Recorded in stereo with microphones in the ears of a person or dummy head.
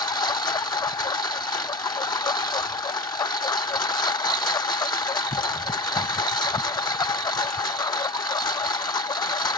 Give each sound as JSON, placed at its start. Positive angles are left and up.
{"t": 0.0, "sound": "a lawn mower", "side_deg": 25}